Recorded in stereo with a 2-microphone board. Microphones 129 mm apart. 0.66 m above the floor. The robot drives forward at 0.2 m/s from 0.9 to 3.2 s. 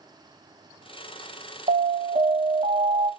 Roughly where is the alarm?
Right.